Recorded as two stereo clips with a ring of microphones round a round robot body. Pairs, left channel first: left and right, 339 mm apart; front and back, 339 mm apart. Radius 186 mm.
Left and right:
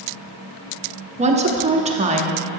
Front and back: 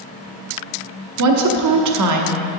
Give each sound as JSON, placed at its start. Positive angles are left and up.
{"t": 1.2, "sound": "a woman speaking", "azimuth_deg": -160, "distance_m": 1.1}